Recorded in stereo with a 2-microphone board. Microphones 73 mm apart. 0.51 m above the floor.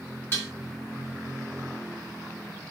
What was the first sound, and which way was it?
Dishes clattering, 35° left (ahead or behind).